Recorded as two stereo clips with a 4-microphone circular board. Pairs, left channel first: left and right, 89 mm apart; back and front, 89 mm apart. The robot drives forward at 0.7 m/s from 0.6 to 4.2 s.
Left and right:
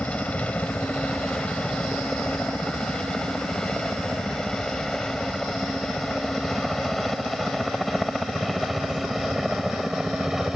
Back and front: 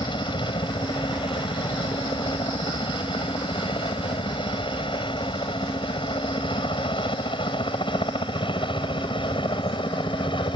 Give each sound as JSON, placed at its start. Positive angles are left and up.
{"t": 0.0, "sound": "a helicopter", "azimuth_deg": 165}